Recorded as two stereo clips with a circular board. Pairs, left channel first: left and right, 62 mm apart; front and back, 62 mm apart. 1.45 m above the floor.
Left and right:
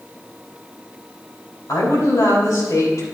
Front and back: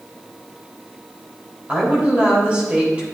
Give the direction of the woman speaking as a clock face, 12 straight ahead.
8 o'clock.